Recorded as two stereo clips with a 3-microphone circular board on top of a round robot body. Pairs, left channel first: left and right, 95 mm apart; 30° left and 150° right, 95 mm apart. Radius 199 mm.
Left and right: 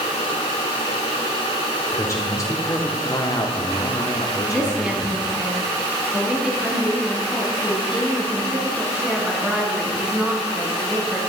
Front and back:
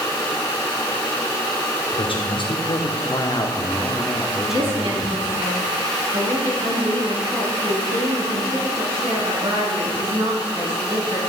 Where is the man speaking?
35° left, 3 m; by 5.2 s 150° left, 2.5 m.